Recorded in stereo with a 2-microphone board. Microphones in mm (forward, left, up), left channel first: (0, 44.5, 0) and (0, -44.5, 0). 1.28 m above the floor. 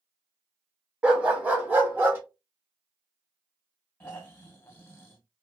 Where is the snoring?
25° left (ahead or behind), 1.0 m.